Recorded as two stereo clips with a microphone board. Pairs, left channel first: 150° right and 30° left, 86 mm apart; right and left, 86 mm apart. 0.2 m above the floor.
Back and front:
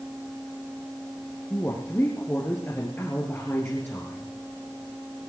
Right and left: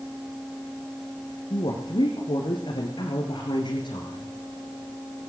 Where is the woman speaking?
85° right, 3 m.